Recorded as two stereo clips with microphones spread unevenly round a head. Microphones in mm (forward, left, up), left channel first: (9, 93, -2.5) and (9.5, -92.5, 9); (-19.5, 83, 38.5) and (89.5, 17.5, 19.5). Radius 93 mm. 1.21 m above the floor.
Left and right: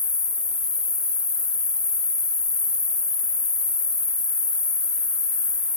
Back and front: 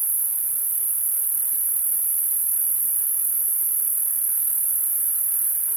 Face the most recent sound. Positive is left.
turn(degrees=25)